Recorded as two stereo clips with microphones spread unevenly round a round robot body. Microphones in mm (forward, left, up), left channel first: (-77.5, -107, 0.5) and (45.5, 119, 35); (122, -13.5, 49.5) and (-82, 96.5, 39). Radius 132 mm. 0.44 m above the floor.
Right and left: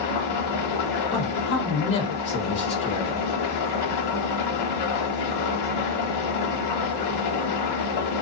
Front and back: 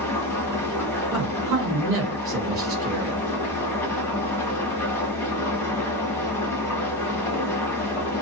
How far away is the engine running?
About 1.0 m.